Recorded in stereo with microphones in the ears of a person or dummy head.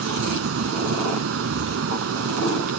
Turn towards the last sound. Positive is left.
turn(degrees=-70)  # may be behind; listen again after turning